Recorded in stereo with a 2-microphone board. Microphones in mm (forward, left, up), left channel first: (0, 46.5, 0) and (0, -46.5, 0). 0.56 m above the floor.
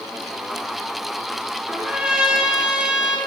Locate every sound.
1.7 s a trumpet: 10° right (ahead or behind), 0.6 m